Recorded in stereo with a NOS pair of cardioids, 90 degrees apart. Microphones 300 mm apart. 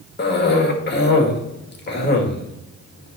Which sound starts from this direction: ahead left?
A cough, at 0.2 s.